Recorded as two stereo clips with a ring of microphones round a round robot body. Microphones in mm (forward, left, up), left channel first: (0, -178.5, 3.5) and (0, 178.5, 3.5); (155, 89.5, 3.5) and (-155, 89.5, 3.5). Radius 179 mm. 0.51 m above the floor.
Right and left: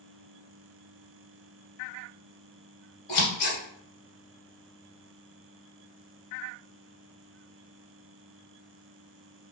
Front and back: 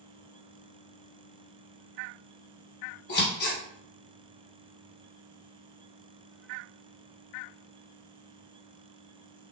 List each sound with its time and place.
3.1 s scissors: 65° right, 1.9 m